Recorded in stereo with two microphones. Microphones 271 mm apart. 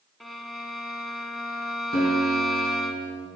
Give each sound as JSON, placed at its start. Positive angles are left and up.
{"t": 0.2, "sound": "a violin", "side_deg": 0, "distance_m": 0.8}
{"t": 1.9, "sound": "a guitar", "side_deg": 35, "distance_m": 3.0}